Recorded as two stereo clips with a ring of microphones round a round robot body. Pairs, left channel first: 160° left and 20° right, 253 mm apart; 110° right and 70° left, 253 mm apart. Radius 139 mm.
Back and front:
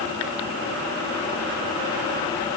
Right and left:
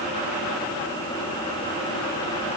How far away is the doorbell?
No doorbell in this recording.